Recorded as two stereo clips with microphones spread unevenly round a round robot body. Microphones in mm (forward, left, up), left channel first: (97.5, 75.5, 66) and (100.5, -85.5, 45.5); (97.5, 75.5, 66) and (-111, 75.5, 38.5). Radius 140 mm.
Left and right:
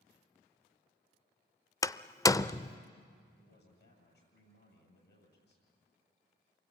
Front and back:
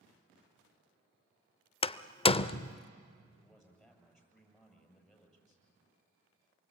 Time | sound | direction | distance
1.8 | a door slam | 35° left | 0.6 m
3.4 | a man speaking | 90° left | 8 m